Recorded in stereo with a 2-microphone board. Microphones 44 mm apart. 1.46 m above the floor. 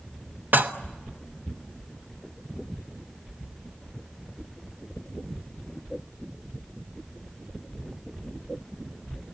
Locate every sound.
0.5 s dishes clattering: 45° right (ahead or behind), 1.0 m